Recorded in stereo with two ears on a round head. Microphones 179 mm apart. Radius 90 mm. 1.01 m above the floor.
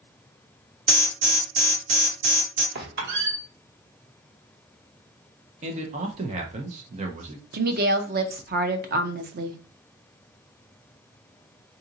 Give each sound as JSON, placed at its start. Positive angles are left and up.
{"t": 0.9, "sound": "an alarm", "side_deg": -35, "distance_m": 1.1}
{"t": 2.8, "sound": "a squeak", "side_deg": -60, "distance_m": 1.0}
{"t": 5.6, "sound": "a man speaking", "side_deg": -35, "distance_m": 0.7}
{"t": 7.5, "sound": "a woman speaking", "side_deg": -50, "distance_m": 0.6}